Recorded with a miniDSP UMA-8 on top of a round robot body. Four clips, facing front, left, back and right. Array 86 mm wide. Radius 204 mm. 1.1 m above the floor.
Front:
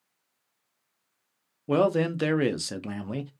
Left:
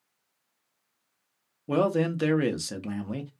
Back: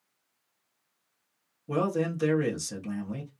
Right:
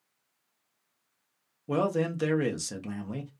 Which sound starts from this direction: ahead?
A man speaking, at 1.7 s.